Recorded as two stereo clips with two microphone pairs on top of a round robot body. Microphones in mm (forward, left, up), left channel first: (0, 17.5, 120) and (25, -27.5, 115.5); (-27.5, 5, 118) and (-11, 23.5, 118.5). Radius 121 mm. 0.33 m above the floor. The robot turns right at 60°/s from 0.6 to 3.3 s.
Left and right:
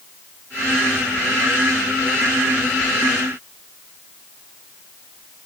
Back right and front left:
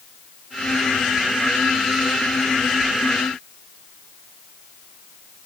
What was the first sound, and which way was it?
Only background noise.